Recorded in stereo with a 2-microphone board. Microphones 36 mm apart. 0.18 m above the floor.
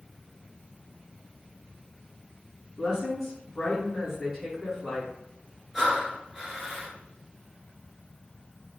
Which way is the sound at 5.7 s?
5° right (ahead or behind).